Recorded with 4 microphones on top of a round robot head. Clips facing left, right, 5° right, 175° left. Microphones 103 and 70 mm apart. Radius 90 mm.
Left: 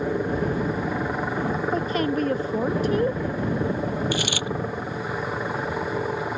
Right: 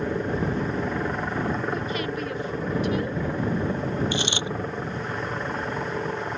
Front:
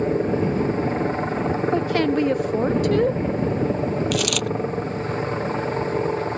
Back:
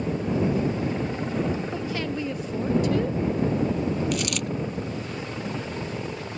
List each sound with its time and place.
0.0 s a helicopter: 10° left
1.7 s a woman speaking: 30° left
4.1 s a dropped coin: 20° right